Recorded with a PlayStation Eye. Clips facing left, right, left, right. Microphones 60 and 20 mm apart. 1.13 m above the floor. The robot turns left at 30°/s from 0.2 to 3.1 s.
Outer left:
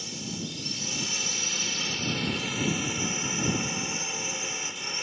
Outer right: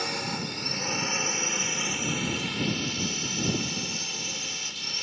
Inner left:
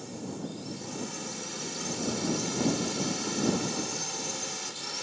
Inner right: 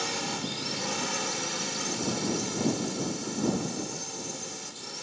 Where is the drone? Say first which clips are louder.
Outer right 5 dB, inner right 7 dB; 115° right; by 5.0 s 160° left.